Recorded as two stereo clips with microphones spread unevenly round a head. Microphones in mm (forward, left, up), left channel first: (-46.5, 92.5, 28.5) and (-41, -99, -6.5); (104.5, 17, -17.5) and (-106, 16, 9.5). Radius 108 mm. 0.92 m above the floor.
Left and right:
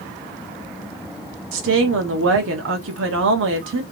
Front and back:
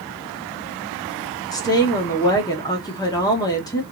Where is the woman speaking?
75° right, 1.4 m.